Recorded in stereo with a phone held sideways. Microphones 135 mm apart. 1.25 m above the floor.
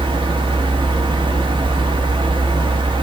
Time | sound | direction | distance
0.0 | a fan | 35° right (ahead or behind) | 1.3 m